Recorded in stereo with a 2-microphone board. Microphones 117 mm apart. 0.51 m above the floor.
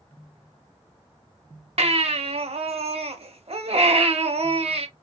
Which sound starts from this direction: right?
A baby crying, at 1.8 s.